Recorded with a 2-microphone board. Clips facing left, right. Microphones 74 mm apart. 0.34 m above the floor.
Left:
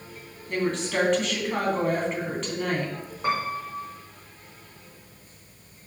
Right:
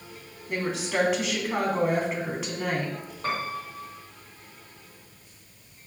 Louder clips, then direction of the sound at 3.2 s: Left 4 dB; 15° left (ahead or behind).